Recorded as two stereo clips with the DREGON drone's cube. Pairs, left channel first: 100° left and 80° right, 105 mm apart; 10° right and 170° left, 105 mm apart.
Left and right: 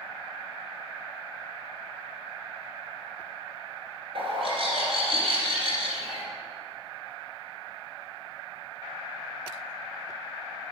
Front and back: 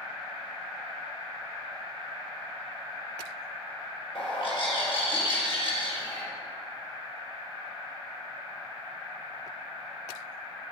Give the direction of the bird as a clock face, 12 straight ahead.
1 o'clock.